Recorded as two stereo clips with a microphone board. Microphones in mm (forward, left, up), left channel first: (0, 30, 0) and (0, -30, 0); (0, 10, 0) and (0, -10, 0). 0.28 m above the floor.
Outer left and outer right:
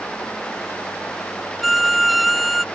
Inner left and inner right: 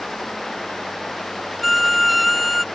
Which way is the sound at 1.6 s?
Centre (ahead or behind).